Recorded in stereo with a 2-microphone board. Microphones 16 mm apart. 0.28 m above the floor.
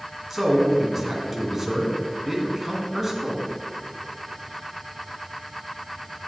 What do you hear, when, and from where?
0.3 s a man speaking: 5° right (ahead or behind), 2 m